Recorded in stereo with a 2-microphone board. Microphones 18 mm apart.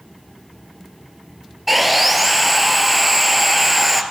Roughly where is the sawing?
Centre.